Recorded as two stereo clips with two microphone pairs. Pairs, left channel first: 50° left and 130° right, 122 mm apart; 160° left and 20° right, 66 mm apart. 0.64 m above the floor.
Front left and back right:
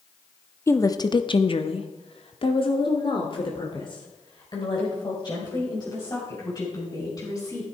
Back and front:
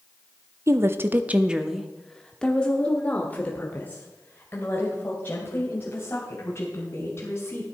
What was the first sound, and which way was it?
A woman speaking, 5° right.